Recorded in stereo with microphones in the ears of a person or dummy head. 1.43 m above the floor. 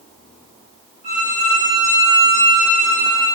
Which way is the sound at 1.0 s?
65° right (ahead or behind).